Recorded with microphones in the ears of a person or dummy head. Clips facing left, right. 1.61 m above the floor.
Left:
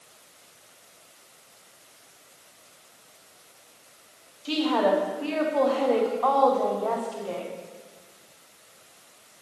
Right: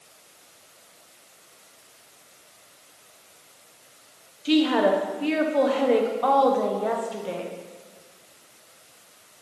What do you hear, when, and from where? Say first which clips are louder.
4.5 s a woman speaking: right 3 dB; 25° right (ahead or behind), 1.0 m